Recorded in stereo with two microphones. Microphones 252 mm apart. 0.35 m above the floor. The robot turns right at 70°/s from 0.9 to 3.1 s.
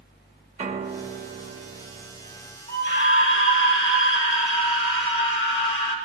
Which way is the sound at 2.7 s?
35° left (ahead or behind).